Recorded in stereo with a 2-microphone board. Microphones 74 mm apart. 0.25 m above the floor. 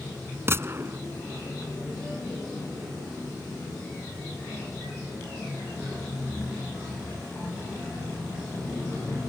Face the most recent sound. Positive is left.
turn(degrees=-35)  # may be behind; listen again after turning